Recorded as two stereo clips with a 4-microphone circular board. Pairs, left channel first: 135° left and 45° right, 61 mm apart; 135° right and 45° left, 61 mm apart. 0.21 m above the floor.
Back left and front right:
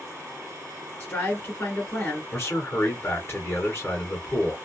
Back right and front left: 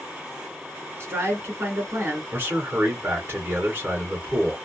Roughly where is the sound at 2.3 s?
Left.